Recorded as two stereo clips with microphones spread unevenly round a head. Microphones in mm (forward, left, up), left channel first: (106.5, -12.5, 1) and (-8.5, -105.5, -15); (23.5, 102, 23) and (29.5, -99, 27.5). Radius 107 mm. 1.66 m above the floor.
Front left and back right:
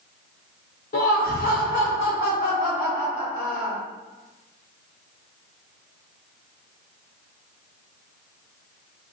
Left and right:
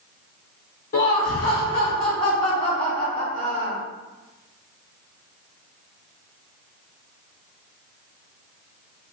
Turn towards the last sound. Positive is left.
turn(degrees=20)